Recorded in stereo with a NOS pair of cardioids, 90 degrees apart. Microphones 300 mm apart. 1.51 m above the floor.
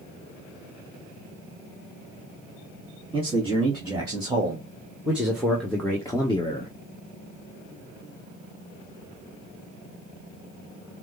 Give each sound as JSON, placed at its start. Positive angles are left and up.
{"t": 3.1, "sound": "a man speaking", "azimuth_deg": -20, "distance_m": 2.5}